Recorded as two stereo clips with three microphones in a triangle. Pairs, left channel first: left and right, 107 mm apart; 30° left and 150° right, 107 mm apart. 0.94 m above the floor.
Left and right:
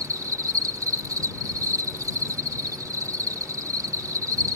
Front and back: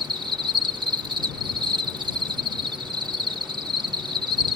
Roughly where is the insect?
Behind right.